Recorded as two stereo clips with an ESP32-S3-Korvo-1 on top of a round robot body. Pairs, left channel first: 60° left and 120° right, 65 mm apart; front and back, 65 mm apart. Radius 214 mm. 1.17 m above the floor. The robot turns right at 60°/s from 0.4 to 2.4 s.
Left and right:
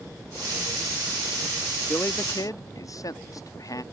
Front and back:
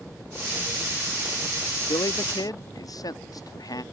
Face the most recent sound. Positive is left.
turn(degrees=25)